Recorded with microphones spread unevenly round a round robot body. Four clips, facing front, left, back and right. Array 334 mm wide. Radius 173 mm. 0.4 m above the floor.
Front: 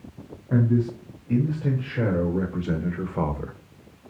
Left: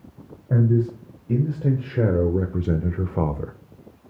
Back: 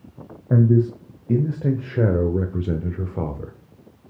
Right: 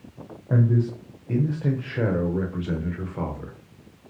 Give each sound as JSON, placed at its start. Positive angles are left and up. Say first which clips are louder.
{"t": 0.5, "sound": "a man speaking", "louder": "left 2 dB, back 4 dB", "azimuth_deg": 180, "distance_m": 1.6}